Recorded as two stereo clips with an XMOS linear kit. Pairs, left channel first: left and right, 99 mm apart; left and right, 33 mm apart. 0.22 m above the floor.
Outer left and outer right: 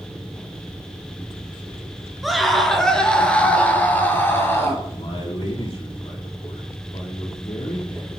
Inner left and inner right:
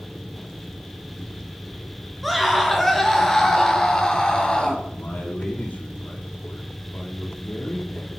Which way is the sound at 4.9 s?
65° left (ahead or behind).